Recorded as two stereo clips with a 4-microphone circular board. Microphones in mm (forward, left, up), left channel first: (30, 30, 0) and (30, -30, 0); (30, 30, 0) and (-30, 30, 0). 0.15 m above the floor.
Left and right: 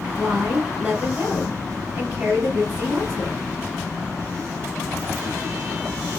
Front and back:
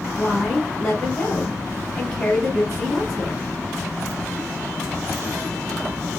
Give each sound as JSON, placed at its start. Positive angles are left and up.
{"t": 0.2, "sound": "a woman speaking", "azimuth_deg": -80, "distance_m": 1.1}